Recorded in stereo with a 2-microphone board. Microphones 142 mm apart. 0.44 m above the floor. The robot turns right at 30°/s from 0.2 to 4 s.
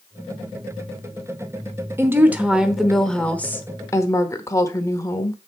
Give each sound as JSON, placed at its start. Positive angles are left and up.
{"t": 2.0, "sound": "a woman speaking", "azimuth_deg": -25, "distance_m": 0.9}